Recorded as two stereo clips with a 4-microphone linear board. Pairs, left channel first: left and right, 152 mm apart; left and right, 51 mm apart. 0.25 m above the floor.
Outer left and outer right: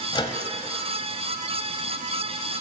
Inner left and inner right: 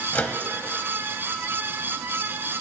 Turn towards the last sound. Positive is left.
turn(degrees=30)  # may be behind; listen again after turning